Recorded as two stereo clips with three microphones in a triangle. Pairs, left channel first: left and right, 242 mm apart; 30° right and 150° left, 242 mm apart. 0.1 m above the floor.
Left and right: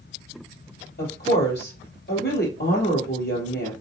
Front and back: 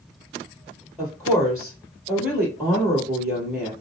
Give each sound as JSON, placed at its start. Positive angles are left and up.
{"t": 1.0, "sound": "a woman speaking", "azimuth_deg": 65, "distance_m": 1.9}